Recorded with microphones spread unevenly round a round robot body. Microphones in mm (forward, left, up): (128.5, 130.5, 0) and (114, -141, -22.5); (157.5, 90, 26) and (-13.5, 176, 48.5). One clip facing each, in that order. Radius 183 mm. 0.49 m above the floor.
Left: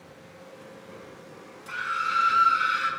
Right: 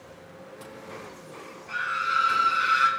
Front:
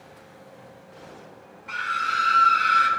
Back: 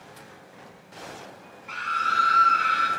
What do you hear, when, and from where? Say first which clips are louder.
1.7 s a scream: right 1 dB, back 1 dB; 60° left, 1.7 m; by 2.9 s 15° right, 1.7 m